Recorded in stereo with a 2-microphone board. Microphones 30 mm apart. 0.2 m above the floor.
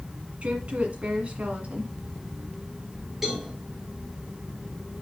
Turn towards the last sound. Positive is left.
turn(degrees=-10)  # may be behind; listen again after turning